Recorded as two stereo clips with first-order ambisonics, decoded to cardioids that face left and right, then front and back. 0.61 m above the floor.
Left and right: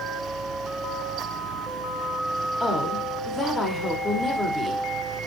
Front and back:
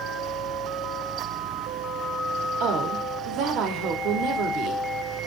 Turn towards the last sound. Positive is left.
turn(degrees=165)